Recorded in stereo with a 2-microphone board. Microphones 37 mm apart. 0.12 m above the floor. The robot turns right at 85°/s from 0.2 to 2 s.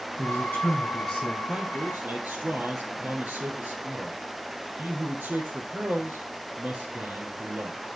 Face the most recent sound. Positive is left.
turn(degrees=-110)